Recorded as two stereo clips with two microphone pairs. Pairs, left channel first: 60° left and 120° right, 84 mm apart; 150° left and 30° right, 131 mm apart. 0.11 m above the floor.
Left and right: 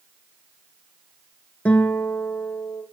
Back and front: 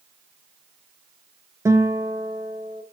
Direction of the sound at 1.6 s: 5° left.